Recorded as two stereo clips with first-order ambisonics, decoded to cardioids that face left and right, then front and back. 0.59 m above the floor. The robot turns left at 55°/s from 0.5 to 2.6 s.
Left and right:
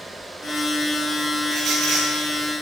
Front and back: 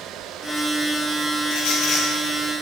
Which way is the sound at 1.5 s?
20° right.